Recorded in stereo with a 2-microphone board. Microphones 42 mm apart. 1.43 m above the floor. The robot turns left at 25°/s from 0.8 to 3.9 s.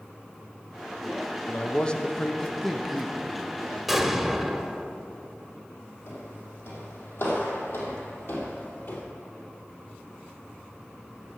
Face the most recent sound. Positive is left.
turn(degrees=55)  # may be behind; listen again after turning